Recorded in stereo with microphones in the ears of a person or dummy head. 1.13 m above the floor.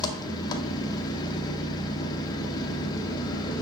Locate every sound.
0.0 s an engine running: 25° left (ahead or behind), 0.7 m